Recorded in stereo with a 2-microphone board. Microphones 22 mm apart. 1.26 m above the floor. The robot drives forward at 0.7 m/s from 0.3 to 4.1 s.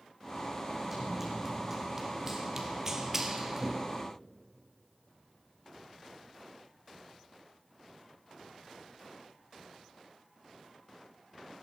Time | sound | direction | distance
0.9 | running footsteps | 15° right (ahead or behind) | 4 m